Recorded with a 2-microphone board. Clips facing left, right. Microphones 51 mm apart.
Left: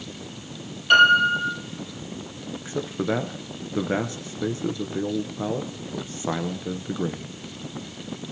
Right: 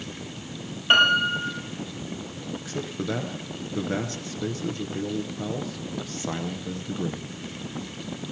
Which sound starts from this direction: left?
A man speaking, at 2.6 s.